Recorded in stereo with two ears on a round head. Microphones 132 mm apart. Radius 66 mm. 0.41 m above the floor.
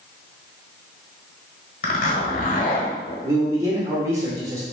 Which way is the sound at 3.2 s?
20° right (ahead or behind).